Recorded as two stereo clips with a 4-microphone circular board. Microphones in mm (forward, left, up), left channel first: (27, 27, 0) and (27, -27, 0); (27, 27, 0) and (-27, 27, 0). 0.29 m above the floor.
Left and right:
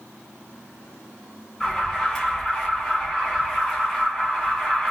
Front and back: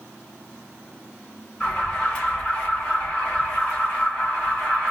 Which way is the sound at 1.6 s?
25° left.